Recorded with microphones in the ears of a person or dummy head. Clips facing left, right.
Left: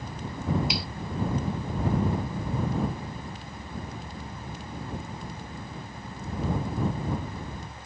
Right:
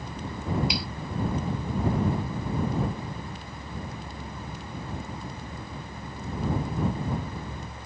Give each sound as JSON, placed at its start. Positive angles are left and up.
{"t": 0.7, "sound": "a finger snap", "side_deg": 0}